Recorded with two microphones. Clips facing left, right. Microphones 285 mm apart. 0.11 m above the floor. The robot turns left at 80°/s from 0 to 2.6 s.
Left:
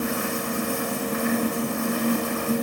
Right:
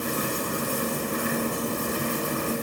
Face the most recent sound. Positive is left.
No sound to turn to.